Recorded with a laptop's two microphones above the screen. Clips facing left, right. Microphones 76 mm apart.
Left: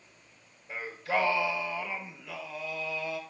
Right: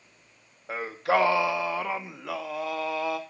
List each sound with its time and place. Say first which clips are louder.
0.7 s singing: right 6 dB; 70° right (ahead or behind), 0.6 m